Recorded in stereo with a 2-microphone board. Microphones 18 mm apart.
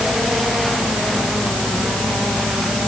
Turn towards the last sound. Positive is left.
No sound to turn to.